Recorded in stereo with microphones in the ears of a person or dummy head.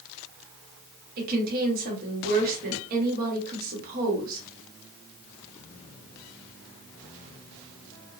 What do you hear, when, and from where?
1.2 s a woman speaking: 50° right (ahead or behind), 0.9 m